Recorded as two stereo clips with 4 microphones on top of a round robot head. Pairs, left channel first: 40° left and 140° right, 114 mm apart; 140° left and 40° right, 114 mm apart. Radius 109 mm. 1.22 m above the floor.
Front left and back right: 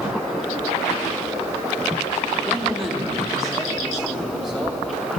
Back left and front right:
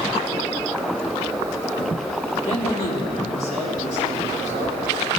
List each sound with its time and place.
2.5 s a man speaking: 130° left, 2.5 m; by 4.8 s 135° left, 4 m